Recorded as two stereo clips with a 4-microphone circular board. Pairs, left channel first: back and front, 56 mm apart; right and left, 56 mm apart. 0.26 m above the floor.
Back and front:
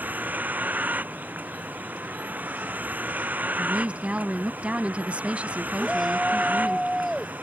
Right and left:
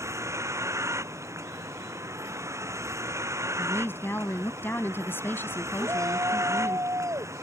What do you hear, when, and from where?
0.0 s a vehicle: 60° left
3.6 s a woman speaking: 60° right
5.8 s a shout: 85° left